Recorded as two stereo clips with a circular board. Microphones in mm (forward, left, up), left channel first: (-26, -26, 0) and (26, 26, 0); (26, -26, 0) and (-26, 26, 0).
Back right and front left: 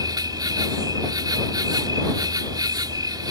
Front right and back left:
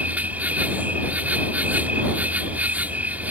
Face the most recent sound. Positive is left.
turn(degrees=70)